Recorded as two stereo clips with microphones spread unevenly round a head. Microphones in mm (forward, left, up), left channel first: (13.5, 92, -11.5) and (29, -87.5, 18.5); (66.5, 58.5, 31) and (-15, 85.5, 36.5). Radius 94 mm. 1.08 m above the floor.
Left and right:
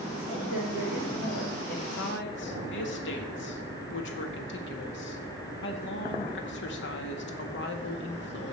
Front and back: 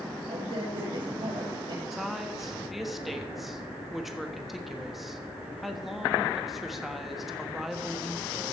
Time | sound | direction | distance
0.3 | a man speaking | 150° left | 3.5 m
1.9 | a woman speaking | 75° left | 1.5 m